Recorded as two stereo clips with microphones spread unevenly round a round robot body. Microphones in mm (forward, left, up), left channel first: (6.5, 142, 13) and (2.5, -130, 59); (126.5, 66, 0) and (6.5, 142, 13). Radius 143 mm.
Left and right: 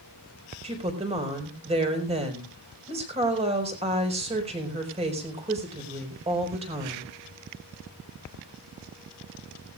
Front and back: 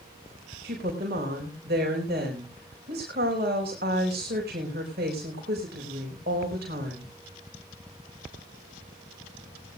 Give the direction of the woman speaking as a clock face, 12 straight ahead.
5 o'clock.